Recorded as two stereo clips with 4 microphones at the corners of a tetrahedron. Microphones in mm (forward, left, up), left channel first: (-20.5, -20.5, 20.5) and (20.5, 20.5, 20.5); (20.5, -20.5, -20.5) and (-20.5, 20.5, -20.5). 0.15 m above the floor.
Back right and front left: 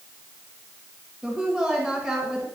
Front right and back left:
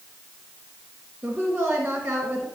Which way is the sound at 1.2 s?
95° left.